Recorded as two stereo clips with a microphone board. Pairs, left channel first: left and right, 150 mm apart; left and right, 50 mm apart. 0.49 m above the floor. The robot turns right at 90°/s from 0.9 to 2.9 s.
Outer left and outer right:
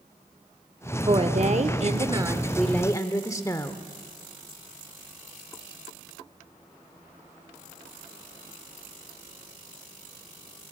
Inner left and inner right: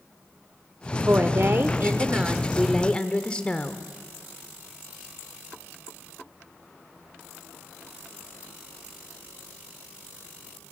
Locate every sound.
1.1 s a woman speaking: 135° right, 1.2 m; by 3.8 s 30° left, 1.2 m